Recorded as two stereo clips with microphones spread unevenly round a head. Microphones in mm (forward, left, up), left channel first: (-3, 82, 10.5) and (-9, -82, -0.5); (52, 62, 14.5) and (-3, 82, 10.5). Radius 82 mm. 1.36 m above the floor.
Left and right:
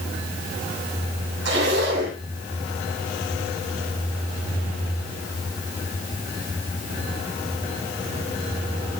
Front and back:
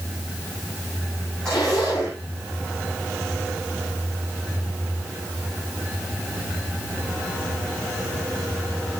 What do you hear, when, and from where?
1.4 s a zipper: 105° right, 9 m